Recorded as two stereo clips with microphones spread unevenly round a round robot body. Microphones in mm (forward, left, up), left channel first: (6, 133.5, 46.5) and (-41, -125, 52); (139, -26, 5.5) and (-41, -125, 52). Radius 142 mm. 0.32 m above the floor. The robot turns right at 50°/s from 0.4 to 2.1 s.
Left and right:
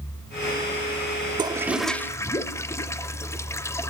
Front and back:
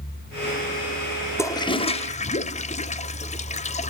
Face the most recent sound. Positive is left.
turn(degrees=5)